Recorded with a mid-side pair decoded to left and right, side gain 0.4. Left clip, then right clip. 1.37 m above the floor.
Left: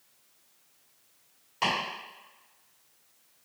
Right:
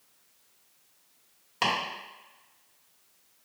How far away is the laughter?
I don't hear laughter.